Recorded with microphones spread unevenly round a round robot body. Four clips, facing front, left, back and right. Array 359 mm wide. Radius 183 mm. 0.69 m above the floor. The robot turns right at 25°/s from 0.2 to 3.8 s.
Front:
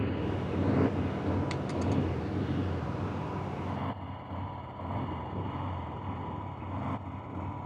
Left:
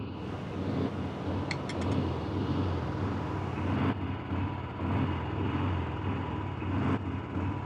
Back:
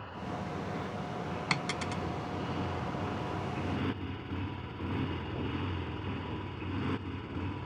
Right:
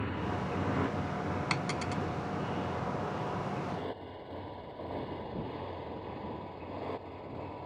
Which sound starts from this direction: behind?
A dropped coin, at 1.5 s.